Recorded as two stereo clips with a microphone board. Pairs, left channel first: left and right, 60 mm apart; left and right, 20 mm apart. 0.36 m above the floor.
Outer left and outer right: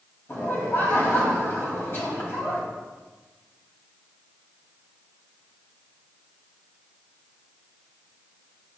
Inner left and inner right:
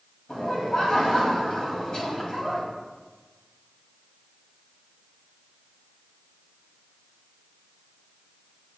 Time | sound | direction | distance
0.3 | laughter | 40° left (ahead or behind) | 2.5 m